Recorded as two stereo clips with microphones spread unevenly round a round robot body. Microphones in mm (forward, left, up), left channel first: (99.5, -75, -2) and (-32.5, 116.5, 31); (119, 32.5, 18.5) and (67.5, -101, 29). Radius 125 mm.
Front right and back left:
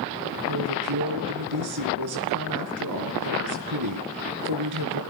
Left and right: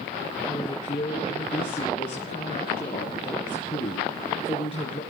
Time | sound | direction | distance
0.5 | a woman speaking | 135° left | 5 m